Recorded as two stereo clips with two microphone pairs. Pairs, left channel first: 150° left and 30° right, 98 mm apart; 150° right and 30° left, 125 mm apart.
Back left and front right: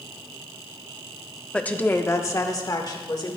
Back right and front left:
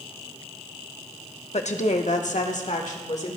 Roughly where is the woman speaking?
Behind right.